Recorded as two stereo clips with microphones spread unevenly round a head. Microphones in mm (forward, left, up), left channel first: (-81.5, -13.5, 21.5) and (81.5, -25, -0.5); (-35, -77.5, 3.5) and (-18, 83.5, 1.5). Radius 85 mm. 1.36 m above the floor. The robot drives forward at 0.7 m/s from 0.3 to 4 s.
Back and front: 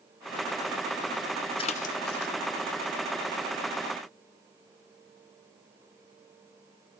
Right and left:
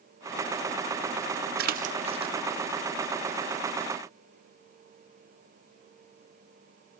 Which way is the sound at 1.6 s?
115° left.